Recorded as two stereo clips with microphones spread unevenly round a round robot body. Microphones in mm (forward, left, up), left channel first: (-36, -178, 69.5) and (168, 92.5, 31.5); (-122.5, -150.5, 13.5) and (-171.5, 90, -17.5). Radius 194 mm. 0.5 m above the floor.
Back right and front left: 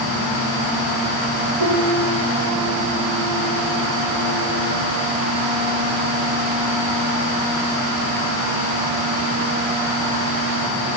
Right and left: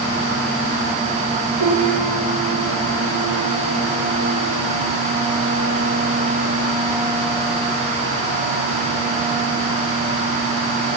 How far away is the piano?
About 9.5 m.